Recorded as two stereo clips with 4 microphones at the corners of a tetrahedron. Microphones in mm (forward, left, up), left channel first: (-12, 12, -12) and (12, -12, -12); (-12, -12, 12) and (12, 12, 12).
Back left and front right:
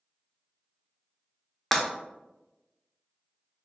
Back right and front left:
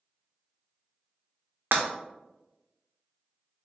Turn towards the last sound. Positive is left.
turn(degrees=50)